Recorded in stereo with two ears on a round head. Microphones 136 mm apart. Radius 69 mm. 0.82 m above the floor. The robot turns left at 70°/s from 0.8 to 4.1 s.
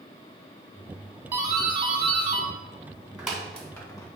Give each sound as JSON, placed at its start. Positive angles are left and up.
{"t": 1.3, "sound": "a doorbell", "side_deg": -20, "distance_m": 1.4}